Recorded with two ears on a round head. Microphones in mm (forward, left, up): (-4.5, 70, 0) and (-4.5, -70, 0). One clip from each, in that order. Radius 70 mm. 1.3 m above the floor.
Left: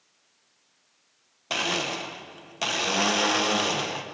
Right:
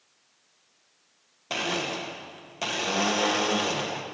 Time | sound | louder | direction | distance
1.5 | a blender | left 2 dB | 20° left (ahead or behind) | 1.1 m